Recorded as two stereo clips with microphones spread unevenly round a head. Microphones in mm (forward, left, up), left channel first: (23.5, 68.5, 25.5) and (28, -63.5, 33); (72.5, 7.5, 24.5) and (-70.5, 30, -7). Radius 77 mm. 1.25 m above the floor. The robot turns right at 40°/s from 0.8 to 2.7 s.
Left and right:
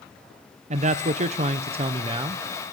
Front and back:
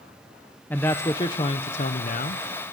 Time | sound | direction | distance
0.7 | a man speaking | 95° right | 0.6 m